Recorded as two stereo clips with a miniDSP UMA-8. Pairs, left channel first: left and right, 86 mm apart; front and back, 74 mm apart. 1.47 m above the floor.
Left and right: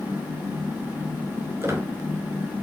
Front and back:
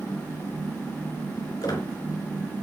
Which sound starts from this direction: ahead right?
A squeak, at 1.6 s.